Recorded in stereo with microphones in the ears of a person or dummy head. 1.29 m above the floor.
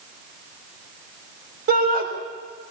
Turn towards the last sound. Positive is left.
turn(degrees=-45)  # may be behind; listen again after turning